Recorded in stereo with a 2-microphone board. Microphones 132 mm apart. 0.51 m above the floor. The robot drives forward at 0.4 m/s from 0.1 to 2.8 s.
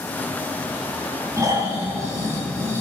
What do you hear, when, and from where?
1.4 s snoring: 25° right (ahead or behind), 3 m